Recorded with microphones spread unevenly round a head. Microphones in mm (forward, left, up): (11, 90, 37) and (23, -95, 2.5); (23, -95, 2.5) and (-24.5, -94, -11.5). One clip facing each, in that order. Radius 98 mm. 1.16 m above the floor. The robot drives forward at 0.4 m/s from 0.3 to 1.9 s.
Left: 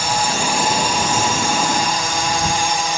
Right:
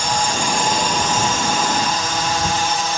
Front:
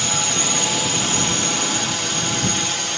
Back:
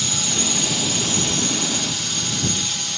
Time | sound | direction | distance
0.0 | a drone | straight ahead | ?